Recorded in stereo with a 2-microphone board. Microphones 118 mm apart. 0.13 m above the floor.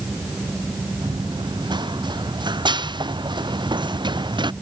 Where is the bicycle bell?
I don't hear a bicycle bell.